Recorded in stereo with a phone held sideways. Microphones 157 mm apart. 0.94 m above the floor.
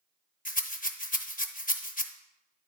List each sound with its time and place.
0.5 s a rattle: 60° left (ahead or behind), 0.7 m